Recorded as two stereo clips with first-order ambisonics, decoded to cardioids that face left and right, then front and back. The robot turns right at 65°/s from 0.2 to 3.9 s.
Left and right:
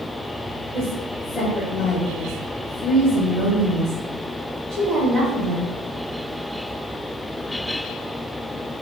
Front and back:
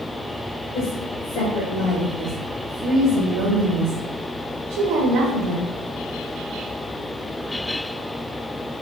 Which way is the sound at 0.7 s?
15° right.